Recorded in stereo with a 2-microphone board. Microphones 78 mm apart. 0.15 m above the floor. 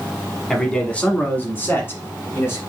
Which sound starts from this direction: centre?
A man speaking, at 0.5 s.